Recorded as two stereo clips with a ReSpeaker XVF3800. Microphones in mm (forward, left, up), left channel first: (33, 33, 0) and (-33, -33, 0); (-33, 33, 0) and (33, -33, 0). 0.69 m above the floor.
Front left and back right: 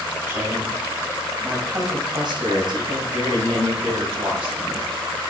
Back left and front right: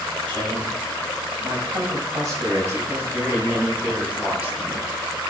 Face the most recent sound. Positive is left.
turn(degrees=-125)